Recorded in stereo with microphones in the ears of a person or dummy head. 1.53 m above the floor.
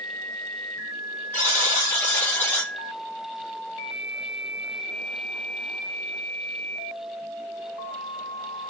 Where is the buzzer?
15° left (ahead or behind), 1.2 m.